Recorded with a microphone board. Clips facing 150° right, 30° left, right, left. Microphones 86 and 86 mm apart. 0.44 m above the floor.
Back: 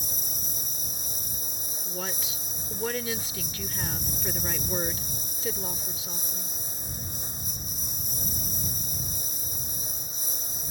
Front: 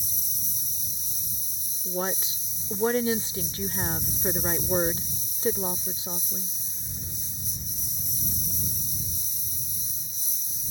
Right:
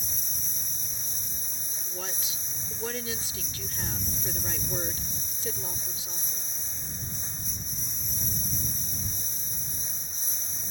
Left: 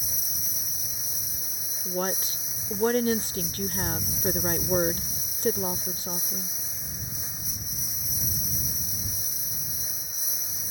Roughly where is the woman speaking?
Left.